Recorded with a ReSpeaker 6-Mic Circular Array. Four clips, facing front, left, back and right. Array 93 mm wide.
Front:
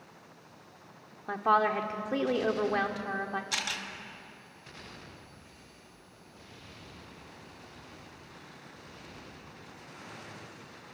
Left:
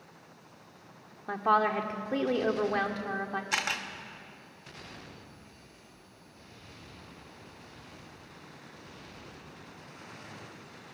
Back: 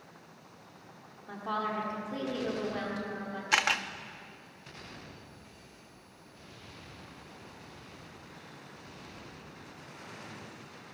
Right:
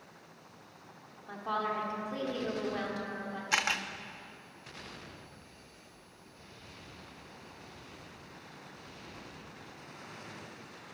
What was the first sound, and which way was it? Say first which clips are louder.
A woman speaking: left 8 dB, front 8 dB; 45° left.